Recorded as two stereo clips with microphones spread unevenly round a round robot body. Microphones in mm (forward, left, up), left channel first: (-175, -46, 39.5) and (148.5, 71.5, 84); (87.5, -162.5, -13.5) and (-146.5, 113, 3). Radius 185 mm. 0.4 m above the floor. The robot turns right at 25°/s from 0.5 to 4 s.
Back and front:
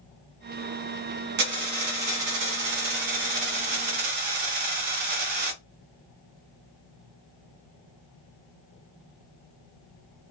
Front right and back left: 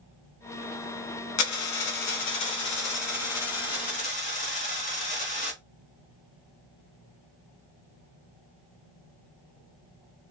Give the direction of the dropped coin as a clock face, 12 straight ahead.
1 o'clock.